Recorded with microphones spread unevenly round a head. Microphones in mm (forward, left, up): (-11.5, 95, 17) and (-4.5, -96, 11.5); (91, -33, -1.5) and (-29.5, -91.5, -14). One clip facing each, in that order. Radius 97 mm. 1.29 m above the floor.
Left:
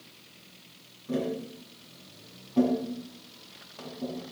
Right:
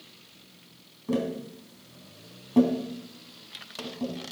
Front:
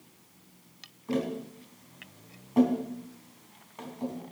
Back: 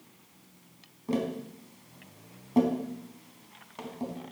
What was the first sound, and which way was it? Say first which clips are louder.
Tapping: right 2 dB, even; 100° right.